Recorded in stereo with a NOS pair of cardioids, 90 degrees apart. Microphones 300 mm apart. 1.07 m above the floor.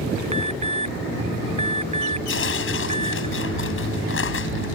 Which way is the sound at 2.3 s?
45° left.